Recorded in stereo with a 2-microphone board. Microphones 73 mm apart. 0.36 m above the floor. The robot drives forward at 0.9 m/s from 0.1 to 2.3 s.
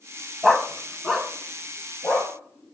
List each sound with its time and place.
0.4 s a dog barking: centre (ahead or behind), 0.6 m